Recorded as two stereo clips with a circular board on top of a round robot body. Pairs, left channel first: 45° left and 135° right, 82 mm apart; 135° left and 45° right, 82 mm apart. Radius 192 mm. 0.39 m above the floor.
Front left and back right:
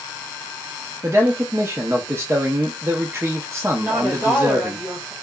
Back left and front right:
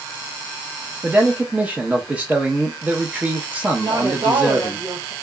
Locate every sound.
1.0 s a man speaking: 105° right, 0.8 m
3.8 s a woman speaking: 60° right, 1.8 m